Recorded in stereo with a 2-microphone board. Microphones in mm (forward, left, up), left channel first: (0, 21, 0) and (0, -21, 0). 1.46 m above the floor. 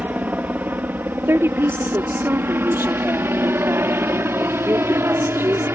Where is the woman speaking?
80° right.